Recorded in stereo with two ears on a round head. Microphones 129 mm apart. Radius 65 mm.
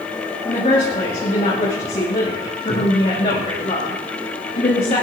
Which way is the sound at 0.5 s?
40° left (ahead or behind).